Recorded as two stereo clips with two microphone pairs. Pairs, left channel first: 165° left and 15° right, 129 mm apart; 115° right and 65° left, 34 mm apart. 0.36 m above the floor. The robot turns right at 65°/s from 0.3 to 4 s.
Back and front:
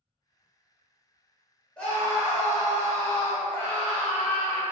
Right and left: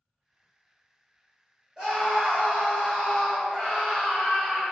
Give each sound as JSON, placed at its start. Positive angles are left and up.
{"t": 1.8, "sound": "a scream", "azimuth_deg": 95, "distance_m": 1.1}